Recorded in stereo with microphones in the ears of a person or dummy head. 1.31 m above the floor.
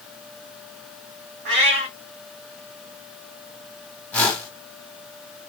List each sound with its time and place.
1.4 s a cat meowing: 45° right (ahead or behind), 1.0 m
4.1 s a whoosh: 10° left (ahead or behind), 1.3 m